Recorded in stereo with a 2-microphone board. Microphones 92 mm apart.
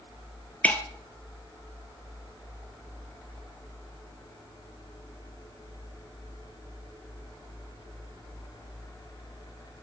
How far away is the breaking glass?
About 1.5 m.